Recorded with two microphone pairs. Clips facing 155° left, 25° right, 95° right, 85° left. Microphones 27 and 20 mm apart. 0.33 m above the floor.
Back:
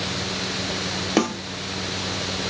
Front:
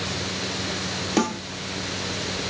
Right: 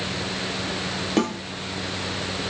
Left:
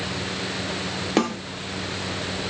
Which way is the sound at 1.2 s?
110° left.